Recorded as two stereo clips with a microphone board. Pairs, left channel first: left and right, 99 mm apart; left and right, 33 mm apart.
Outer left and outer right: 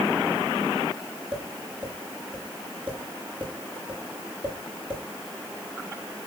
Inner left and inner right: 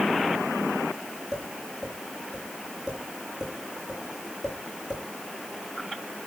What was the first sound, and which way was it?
Tapping, 15° right (ahead or behind).